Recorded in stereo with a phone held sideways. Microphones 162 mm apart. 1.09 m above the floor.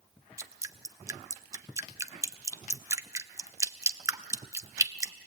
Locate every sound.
0.4 s dripping: 20° right (ahead or behind), 0.6 m